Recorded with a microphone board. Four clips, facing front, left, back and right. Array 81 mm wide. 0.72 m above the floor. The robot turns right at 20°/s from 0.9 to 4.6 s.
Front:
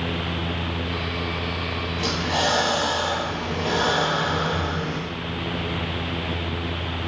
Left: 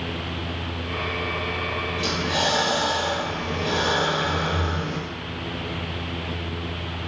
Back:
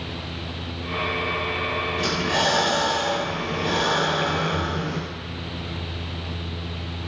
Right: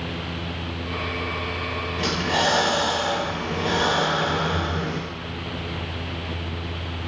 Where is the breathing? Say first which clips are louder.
Right 3 dB, front 1 dB; 110° right, 0.8 m; by 5.0 s 55° right, 0.8 m.